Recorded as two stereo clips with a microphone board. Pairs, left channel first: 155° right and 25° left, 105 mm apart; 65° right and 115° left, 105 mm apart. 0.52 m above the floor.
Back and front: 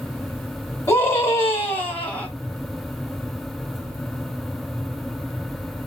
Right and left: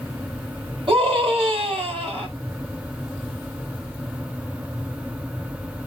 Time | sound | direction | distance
0.9 | a scream | 135° left | 4 m